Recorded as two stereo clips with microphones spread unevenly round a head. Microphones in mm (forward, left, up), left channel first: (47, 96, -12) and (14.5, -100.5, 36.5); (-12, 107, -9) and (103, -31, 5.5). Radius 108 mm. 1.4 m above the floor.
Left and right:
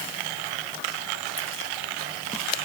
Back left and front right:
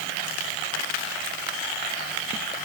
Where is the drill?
I don't hear a drill.